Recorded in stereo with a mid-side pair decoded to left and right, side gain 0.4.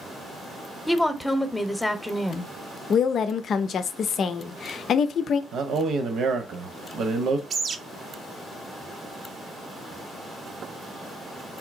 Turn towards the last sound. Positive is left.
turn(degrees=-55)